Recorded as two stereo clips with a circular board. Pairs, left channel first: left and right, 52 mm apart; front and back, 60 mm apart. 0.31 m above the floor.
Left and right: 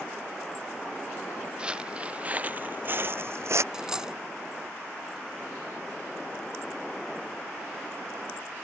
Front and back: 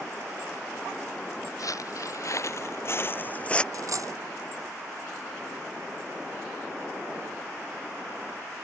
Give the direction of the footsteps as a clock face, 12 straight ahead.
1 o'clock.